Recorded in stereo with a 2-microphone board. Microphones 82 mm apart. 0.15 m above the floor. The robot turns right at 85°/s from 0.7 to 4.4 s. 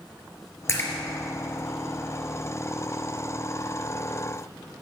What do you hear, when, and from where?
0.7 s a splash: 35° left (ahead or behind), 2.5 m; by 0.9 s 20° left (ahead or behind), 2.5 m